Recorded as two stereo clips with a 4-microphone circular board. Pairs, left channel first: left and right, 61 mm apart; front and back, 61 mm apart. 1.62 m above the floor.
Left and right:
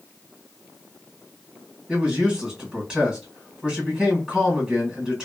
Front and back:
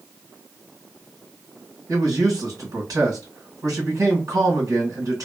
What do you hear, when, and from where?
1.9 s a man speaking: 165° right, 1.9 m